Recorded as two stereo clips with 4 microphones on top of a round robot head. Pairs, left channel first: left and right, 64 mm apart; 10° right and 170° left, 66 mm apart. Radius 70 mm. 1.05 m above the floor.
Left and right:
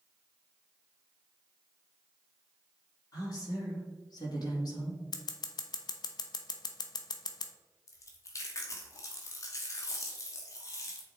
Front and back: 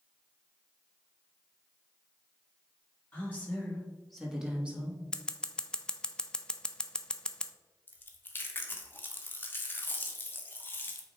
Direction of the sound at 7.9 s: 50° left.